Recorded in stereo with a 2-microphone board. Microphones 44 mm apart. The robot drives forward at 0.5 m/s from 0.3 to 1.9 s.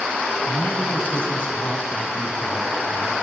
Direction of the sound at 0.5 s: 30° left (ahead or behind).